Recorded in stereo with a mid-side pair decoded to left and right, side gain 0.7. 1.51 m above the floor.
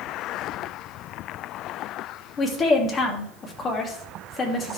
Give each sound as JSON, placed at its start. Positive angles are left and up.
{"t": 2.4, "sound": "a woman speaking", "azimuth_deg": 30, "distance_m": 2.5}